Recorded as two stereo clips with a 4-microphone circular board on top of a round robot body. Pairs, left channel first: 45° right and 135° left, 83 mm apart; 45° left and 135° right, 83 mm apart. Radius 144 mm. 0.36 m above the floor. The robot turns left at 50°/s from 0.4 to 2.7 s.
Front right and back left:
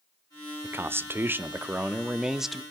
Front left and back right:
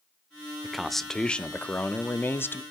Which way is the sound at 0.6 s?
145° left.